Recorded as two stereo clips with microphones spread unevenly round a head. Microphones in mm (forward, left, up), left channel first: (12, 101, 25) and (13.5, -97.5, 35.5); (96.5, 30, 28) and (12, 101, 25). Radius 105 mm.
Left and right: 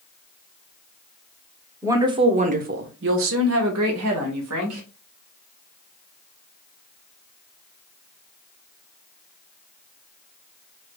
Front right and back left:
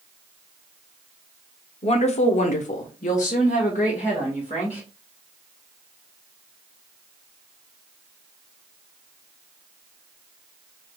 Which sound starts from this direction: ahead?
A woman speaking, at 1.8 s.